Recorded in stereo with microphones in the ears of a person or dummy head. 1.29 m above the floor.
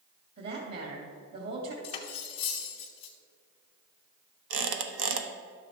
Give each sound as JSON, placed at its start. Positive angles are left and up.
{"t": 0.4, "sound": "a woman speaking", "side_deg": -60, "distance_m": 2.0}
{"t": 1.8, "sound": "cutlery clinking", "side_deg": 30, "distance_m": 0.9}
{"t": 4.5, "sound": "a squeak", "side_deg": -80, "distance_m": 1.2}